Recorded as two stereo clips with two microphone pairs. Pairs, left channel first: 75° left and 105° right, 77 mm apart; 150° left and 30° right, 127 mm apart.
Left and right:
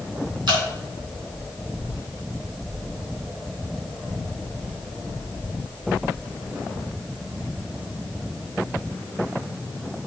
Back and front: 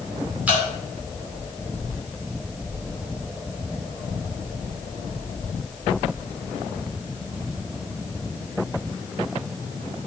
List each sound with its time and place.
0.5 s dripping: 105° right, 2 m